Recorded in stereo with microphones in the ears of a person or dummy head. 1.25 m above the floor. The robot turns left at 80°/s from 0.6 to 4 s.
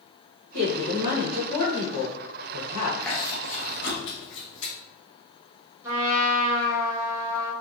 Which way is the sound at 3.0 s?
Centre (ahead or behind).